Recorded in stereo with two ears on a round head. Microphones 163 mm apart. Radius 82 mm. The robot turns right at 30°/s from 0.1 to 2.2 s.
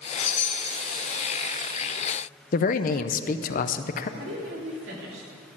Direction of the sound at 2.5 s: 45° left (ahead or behind).